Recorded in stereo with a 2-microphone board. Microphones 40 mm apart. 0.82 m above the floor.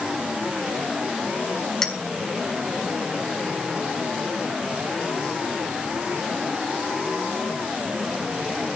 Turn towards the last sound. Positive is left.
turn(degrees=10)  # may be behind; listen again after turning